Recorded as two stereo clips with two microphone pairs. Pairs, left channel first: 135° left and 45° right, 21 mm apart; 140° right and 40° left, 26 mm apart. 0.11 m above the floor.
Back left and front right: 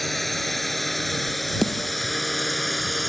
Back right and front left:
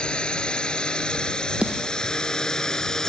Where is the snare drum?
60° left.